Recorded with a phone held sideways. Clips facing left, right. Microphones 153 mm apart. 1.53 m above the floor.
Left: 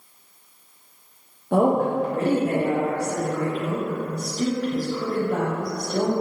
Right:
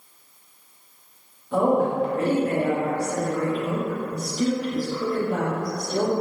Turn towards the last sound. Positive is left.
turn(degrees=-15)  # may be behind; listen again after turning